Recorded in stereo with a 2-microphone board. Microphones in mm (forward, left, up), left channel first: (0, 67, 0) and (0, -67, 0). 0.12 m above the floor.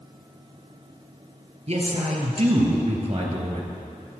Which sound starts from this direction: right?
A man speaking, at 1.7 s.